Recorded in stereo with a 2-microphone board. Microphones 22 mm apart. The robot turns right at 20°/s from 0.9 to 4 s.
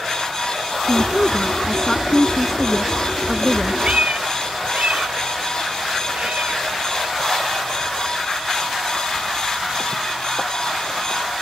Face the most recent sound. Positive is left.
turn(degrees=-75)  # may be behind; listen again after turning